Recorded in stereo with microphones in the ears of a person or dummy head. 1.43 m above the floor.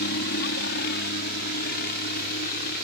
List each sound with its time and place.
0.0 s a helicopter: 50° left (ahead or behind); by 2.9 s 45° left (ahead or behind)